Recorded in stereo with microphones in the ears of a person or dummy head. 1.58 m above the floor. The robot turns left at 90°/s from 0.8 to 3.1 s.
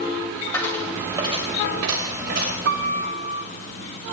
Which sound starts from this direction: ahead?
A dropped coin, at 0.5 s.